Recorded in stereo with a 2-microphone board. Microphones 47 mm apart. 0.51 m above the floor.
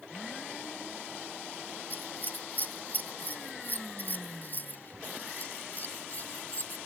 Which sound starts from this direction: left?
Scissors, at 1.9 s.